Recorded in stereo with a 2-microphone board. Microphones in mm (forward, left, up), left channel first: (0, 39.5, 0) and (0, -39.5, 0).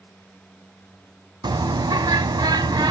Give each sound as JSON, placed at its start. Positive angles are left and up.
{"t": 1.4, "sound": "a bird", "side_deg": -65, "distance_m": 0.6}